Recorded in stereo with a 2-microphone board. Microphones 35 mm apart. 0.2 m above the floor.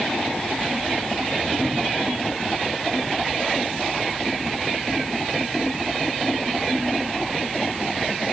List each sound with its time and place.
Only background noise.